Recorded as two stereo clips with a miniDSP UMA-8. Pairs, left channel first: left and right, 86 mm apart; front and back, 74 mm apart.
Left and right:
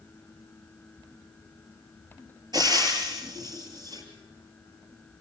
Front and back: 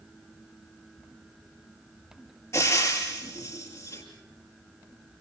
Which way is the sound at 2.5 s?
55° right.